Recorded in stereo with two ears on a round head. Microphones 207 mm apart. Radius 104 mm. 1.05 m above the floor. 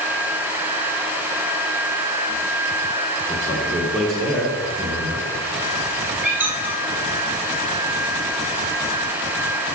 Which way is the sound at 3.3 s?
15° left (ahead or behind).